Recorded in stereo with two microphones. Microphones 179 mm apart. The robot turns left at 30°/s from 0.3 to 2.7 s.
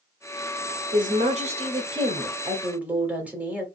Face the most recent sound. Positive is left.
turn(degrees=-170)